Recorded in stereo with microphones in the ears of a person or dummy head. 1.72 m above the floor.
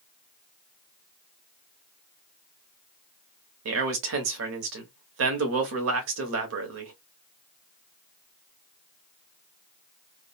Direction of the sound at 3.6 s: 75° right (ahead or behind).